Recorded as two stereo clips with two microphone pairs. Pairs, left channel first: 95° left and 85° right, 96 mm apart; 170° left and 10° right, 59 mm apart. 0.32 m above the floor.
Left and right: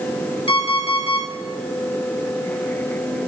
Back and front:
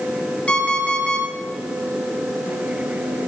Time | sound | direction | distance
0.5 | an alarm clock | 105° left | 3 m